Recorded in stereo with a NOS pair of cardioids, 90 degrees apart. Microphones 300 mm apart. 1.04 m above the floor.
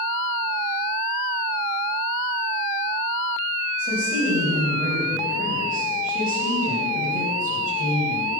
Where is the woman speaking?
35° right, 5 m.